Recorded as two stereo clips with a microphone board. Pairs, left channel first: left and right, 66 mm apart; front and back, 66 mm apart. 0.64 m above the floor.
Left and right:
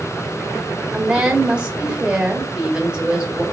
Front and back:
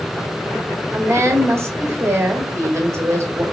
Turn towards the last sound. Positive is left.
turn(degrees=-160)